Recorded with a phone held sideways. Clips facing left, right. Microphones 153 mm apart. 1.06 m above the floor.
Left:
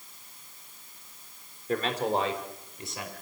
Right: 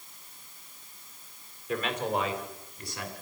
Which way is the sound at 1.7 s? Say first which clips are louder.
Left 2 dB; 40° left (ahead or behind).